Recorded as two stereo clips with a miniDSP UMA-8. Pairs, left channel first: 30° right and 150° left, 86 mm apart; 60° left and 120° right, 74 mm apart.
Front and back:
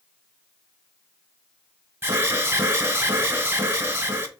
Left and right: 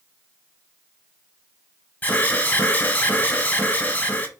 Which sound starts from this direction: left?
An alarm, at 2.0 s.